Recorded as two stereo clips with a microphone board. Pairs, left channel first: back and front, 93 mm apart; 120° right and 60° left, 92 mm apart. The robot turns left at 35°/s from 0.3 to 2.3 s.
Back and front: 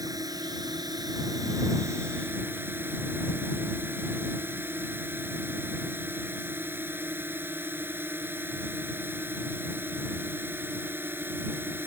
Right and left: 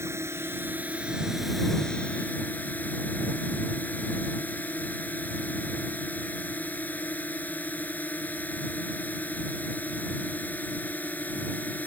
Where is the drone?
15° left; by 11.9 s 55° right.